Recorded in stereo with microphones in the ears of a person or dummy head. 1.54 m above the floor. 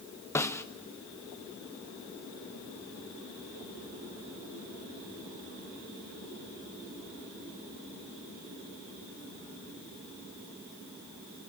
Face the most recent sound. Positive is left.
turn(degrees=10)  # may be behind; listen again after turning